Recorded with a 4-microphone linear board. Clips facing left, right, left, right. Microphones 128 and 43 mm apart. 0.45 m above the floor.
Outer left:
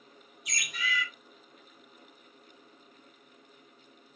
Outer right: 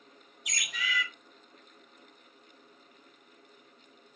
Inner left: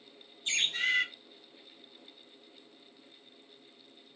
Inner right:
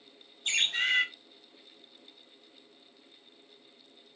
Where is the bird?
80° right, 0.8 m.